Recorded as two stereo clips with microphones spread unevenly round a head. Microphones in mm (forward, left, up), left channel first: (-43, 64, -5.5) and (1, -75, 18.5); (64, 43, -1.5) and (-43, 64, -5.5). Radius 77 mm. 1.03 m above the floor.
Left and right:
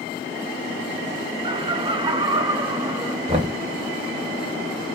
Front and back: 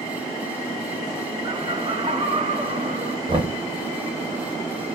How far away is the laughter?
About 0.7 m.